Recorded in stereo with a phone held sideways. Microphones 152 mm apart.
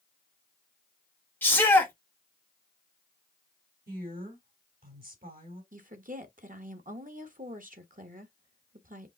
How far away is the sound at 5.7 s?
About 1.1 m.